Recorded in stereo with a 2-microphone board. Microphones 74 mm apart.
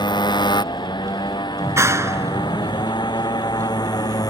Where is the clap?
40° right (ahead or behind).